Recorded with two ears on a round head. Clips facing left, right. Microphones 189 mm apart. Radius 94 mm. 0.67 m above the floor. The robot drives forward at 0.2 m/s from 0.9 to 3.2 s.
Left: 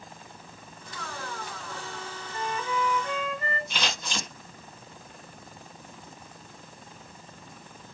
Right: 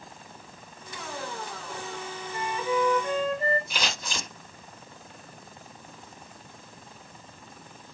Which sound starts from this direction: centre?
Scissors, at 3.7 s.